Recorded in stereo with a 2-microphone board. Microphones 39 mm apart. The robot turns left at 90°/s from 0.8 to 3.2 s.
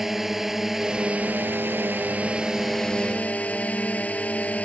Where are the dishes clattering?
No dishes clattering in this recording.